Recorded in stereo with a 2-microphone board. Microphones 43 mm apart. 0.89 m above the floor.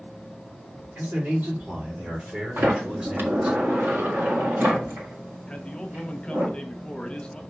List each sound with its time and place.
0.9 s a man speaking: 50° right (ahead or behind), 3.5 m; by 3.6 s 20° right (ahead or behind), 2.5 m
2.6 s a sliding door: 60° right (ahead or behind), 1.7 m
5.5 s a man speaking: 25° left (ahead or behind), 0.9 m